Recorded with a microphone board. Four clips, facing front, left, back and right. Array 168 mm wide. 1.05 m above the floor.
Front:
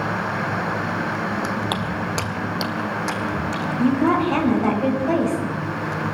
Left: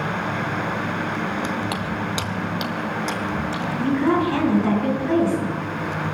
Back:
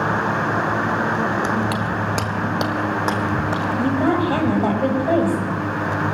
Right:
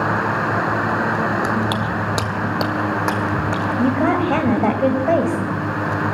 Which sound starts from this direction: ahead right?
Footsteps, at 1.7 s.